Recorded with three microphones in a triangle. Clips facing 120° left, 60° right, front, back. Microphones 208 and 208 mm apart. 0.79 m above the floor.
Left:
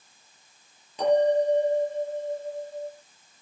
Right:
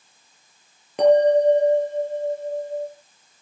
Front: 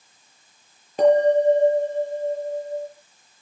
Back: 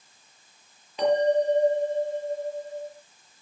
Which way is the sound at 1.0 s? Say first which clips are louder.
Right 6 dB, front 6 dB; 40° right.